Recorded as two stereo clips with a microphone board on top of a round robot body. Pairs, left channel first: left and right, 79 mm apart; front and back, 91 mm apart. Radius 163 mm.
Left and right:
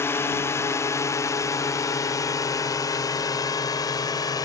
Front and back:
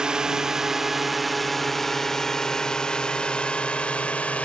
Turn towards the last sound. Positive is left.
turn(degrees=75)